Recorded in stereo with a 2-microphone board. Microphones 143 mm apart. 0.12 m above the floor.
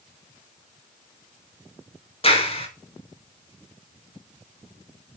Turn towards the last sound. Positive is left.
turn(degrees=45)  # may be behind; listen again after turning